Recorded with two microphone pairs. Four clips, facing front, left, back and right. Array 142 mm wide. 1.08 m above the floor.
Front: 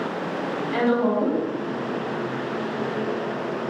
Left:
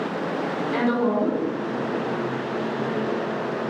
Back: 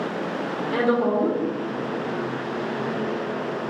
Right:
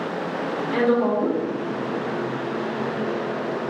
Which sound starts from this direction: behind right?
A woman speaking, at 0.7 s.